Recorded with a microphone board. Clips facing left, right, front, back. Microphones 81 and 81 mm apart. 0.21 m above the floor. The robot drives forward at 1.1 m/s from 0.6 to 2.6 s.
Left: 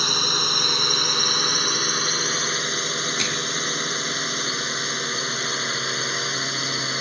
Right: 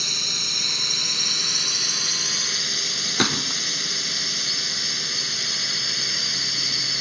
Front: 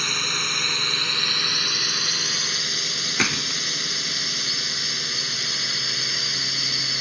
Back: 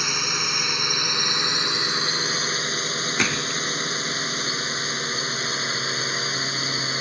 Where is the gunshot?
85° right.